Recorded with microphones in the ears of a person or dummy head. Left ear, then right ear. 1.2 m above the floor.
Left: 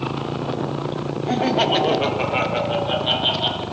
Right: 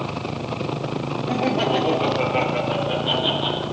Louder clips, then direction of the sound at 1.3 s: Left 3 dB; 45° left (ahead or behind).